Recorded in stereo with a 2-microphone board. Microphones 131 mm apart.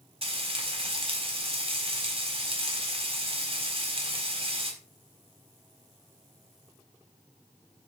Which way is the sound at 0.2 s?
45° right (ahead or behind).